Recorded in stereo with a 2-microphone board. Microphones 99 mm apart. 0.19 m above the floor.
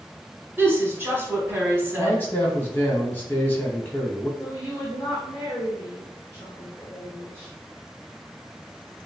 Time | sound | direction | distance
0.6 | a woman speaking | 25° right (ahead or behind) | 1.1 m
2.0 | a man speaking | 20° left (ahead or behind) | 1.1 m
4.4 | a woman speaking | 25° left (ahead or behind) | 1.9 m